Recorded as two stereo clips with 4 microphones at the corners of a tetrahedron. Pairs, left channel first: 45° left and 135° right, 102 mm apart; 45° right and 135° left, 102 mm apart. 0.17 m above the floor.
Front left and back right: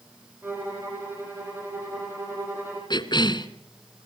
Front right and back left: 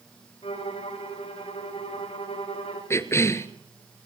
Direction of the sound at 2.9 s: 15° left.